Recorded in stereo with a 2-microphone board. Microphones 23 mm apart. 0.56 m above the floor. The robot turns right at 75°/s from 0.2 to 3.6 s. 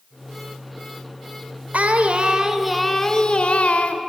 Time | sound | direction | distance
1.7 | singing | 80° right | 0.8 m